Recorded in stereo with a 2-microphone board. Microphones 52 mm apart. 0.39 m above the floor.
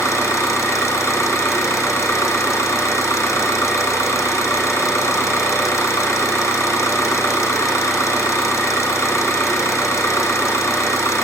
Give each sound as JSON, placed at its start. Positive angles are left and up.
{"t": 0.0, "sound": "an engine running", "side_deg": 80, "distance_m": 1.5}